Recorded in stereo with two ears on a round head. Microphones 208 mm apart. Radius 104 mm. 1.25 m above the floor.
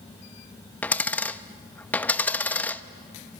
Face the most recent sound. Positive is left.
turn(degrees=5)  # may be behind; listen again after turning